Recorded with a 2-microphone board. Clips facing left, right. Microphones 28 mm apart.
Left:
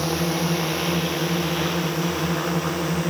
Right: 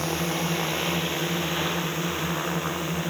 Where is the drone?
45° left (ahead or behind); by 3.1 s 60° left (ahead or behind).